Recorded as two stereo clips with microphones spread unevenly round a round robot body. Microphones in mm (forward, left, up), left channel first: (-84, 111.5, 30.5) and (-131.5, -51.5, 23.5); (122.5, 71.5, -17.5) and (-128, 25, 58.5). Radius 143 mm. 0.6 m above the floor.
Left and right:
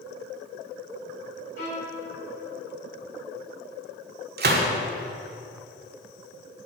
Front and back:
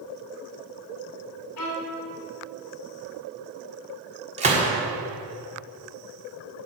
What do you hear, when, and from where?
1.6 s a violin: 25° left, 3 m
4.4 s a gunshot: 95° right, 1.5 m